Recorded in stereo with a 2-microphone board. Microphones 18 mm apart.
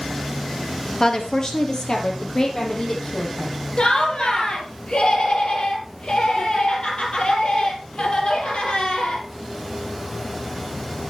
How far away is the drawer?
I don't hear a drawer.